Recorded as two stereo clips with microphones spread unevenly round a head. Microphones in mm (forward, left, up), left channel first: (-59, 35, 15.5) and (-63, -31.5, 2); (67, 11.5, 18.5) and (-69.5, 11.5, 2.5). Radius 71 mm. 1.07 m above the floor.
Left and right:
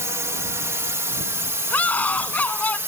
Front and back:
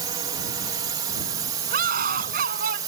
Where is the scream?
155° left.